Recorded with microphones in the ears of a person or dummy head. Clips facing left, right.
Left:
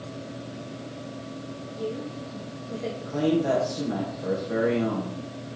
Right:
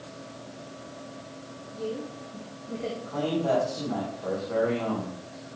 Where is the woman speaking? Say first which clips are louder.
Left 1 dB; 5° left (ahead or behind), 2.5 m.